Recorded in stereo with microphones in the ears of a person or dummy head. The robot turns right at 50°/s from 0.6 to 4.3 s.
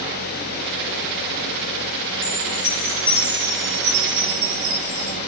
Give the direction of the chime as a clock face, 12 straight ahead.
7 o'clock.